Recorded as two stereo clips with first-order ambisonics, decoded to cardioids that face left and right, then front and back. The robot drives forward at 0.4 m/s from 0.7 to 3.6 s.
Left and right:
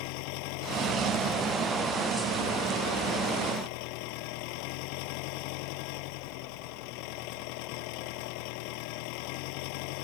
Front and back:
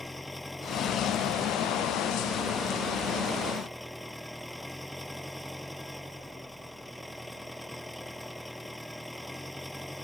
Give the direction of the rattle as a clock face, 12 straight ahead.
No rattle in this recording.